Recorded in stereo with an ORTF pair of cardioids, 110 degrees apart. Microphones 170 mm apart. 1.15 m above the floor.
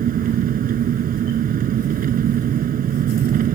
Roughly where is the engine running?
Ahead right.